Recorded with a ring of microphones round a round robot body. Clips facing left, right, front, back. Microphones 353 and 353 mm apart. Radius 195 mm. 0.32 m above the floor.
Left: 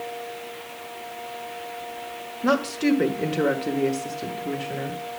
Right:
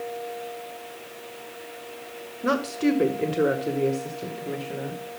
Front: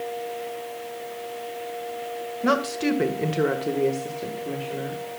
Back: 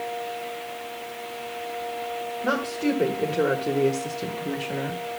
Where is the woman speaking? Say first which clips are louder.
Left 1 dB, front 2 dB; 5° left, 2 m; by 5.0 s 160° left, 2 m.